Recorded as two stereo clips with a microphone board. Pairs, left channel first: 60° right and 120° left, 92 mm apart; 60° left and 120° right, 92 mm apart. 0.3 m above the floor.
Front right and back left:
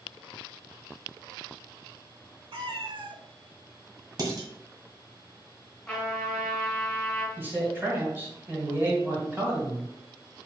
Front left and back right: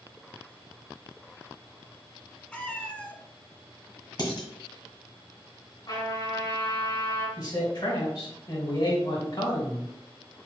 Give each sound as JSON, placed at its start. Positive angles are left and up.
{"t": 2.5, "sound": "a cat meowing", "azimuth_deg": 135, "distance_m": 0.6}
{"t": 4.2, "sound": "dishes clattering", "azimuth_deg": 90, "distance_m": 1.5}
{"t": 5.9, "sound": "a trumpet", "azimuth_deg": 25, "distance_m": 2.5}
{"t": 7.4, "sound": "a man speaking", "azimuth_deg": 60, "distance_m": 2.0}